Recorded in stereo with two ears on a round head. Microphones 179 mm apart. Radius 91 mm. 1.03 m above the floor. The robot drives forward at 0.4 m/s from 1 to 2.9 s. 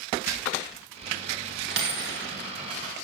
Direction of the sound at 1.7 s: 60° right (ahead or behind).